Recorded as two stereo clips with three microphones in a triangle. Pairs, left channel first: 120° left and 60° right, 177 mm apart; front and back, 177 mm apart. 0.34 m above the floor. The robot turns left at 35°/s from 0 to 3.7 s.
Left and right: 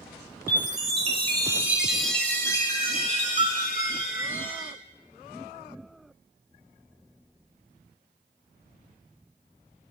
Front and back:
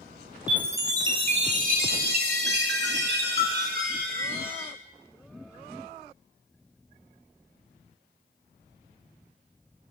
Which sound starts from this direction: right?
A chime, at 0.5 s.